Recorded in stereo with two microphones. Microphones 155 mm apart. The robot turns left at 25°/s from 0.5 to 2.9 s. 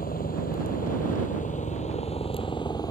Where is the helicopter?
85° left; by 2.9 s 25° left.